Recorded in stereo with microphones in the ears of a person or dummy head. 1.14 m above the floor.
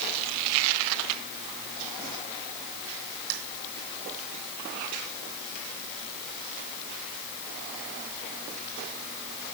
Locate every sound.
Only background noise.